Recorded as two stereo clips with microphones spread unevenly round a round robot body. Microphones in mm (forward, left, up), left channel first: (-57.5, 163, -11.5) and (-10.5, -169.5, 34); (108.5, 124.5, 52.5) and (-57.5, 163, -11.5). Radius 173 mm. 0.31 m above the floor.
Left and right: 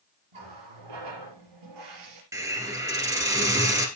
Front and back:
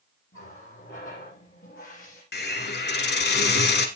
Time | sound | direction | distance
0.3 | a running tap | 70° right | 5.5 m
2.3 | a hiss | straight ahead | 1.7 m